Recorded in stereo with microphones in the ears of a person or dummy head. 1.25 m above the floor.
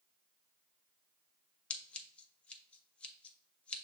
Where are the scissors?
10° left (ahead or behind), 0.5 m.